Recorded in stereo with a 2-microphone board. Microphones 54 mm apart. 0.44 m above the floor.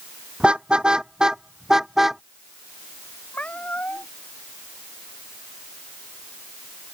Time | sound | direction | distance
0.4 | a car horn | 20° right (ahead or behind) | ?
3.3 | a cat meowing | 25° left (ahead or behind) | ?